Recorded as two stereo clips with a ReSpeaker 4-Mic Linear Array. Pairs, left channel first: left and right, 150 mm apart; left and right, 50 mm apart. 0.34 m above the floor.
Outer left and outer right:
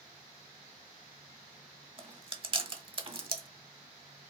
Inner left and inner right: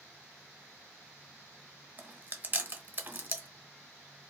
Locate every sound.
2.0 s chewing: 35° right (ahead or behind), 1.0 m